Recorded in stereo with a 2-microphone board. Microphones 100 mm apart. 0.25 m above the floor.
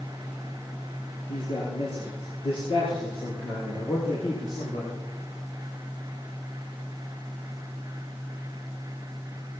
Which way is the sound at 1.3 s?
75° left (ahead or behind).